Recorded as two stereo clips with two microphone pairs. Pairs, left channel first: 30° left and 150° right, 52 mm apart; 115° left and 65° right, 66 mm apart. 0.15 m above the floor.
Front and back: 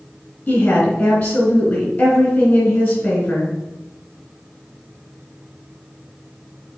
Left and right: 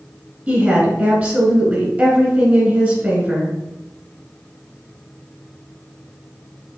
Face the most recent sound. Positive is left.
turn(degrees=-25)